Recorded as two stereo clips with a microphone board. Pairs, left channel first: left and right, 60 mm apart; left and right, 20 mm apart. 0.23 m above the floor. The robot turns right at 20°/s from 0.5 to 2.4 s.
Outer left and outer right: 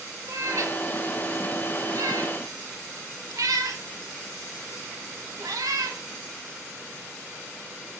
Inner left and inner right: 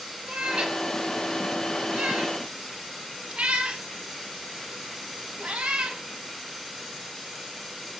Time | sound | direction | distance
0.3 | a cat meowing | 55° right (ahead or behind) | 0.5 m